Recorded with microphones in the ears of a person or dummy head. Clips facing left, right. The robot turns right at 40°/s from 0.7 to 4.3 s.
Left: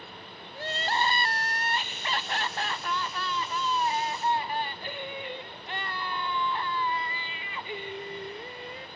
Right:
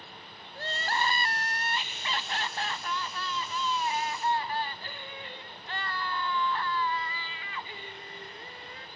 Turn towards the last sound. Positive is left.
turn(degrees=165)